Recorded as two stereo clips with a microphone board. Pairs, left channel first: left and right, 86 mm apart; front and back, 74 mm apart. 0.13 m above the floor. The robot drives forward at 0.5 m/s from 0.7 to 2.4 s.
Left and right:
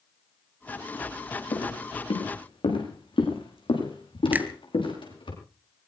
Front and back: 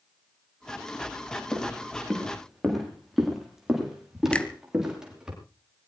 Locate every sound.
1.5 s footsteps: 80° left, 9 m; by 5.3 s 100° left, 9 m
4.3 s a finger snap: 55° right, 1.3 m